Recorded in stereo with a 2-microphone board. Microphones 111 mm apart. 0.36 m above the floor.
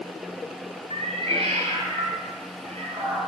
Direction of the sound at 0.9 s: 70° right (ahead or behind).